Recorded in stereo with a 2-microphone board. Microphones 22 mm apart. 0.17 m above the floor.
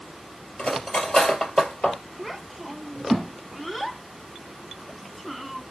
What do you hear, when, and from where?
0.6 s cutlery clinking: 40° left (ahead or behind), 2.5 m
2.2 s a child speaking: 5° left (ahead or behind), 0.6 m